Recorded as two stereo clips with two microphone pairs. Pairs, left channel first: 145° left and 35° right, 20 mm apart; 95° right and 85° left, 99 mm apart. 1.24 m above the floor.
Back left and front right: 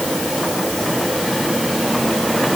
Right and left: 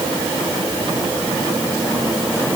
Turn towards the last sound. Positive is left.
No sound to turn to.